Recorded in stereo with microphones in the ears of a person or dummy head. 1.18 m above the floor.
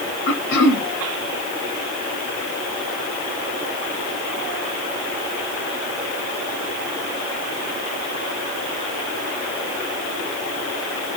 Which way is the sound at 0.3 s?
70° left (ahead or behind).